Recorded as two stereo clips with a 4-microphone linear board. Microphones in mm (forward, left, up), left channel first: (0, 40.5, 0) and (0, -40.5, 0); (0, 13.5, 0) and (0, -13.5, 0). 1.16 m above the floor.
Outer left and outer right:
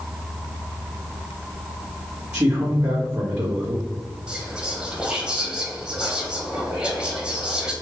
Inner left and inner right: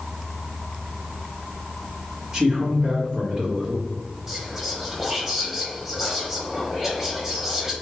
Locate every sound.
2.3 s a man speaking: 30° right (ahead or behind), 1.6 m
4.3 s whispering: 10° right (ahead or behind), 0.8 m